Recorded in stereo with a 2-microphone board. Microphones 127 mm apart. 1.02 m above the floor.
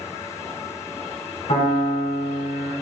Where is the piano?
50° left (ahead or behind), 1.4 m.